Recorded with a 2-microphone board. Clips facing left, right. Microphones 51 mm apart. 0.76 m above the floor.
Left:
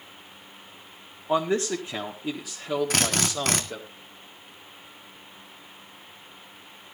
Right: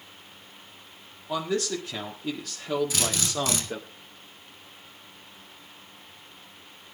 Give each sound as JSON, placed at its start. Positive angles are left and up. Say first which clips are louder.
{"t": 1.3, "sound": "a man speaking", "louder": "left 4 dB", "side_deg": 30, "distance_m": 1.9}
{"t": 2.9, "sound": "a drill", "louder": "left 3 dB", "side_deg": 60, "distance_m": 1.8}